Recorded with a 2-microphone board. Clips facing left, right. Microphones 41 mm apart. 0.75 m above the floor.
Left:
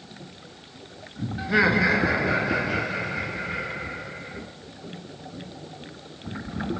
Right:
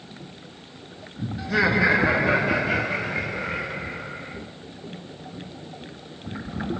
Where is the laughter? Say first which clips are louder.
Even; 25° left (ahead or behind), 0.9 m; by 4.4 s 65° right (ahead or behind), 3.5 m.